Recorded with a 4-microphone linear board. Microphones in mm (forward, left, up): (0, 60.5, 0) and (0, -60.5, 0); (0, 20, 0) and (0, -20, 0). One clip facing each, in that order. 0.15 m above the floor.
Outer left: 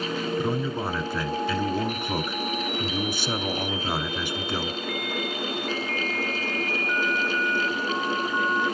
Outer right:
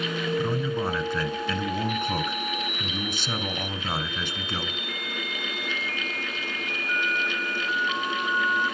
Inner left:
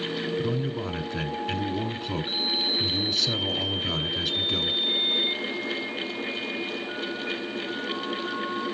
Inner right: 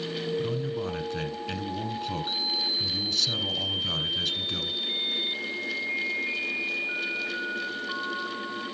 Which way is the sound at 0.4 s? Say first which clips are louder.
Even, inner left 1 dB; 10° left (ahead or behind).